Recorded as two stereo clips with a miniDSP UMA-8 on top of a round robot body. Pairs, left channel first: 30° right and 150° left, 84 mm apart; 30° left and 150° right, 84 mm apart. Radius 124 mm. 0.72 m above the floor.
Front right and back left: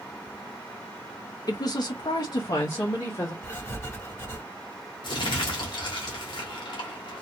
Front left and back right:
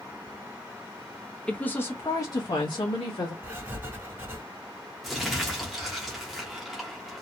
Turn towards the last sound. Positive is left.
turn(degrees=-60)